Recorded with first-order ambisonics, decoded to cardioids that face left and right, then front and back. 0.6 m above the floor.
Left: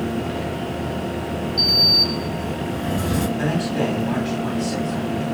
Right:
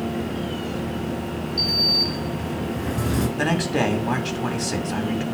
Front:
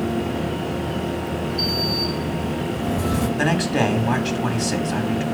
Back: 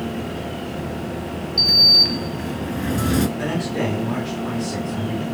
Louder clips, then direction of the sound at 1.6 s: Left 4 dB, back 11 dB; straight behind.